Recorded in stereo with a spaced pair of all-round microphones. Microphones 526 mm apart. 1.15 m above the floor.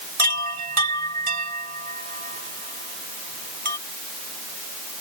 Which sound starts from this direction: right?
A chime, at 0.2 s.